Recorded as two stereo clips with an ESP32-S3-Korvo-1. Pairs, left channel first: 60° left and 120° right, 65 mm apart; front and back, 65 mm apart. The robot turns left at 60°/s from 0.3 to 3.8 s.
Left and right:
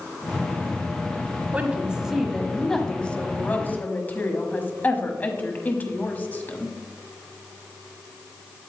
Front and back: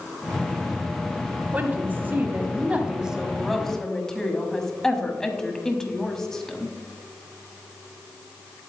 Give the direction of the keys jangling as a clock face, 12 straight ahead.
I don't hear keys jangling.